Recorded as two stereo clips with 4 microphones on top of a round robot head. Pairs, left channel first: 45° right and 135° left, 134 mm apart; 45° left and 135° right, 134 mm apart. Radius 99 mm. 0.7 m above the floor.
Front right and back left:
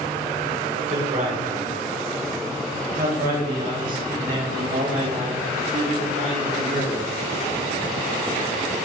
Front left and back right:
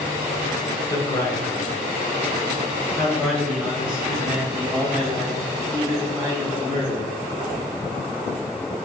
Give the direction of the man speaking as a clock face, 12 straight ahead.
8 o'clock.